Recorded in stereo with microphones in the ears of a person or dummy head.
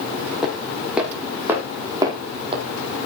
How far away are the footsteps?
About 5 m.